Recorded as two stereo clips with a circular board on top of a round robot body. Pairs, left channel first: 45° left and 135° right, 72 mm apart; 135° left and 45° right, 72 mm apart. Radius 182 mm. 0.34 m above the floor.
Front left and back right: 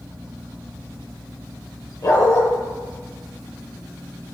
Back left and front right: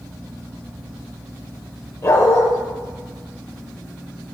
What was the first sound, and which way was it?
A dog barking, 85° left.